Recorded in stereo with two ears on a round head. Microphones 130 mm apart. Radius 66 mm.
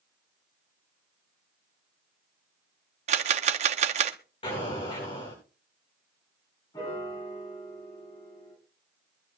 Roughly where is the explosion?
Left.